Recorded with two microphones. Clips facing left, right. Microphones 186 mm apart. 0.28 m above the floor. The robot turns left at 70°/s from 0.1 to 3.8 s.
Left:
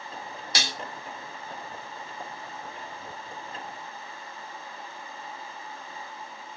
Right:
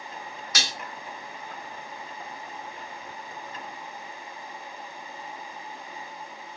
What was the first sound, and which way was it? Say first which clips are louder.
Dishes clattering: left 1 dB; 30° left (ahead or behind).